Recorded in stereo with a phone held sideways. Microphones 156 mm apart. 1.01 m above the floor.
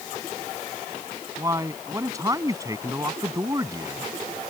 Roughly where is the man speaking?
Right.